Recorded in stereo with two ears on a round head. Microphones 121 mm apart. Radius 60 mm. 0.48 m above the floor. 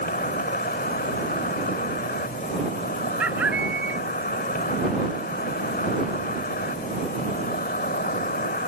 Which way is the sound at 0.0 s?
70° left (ahead or behind).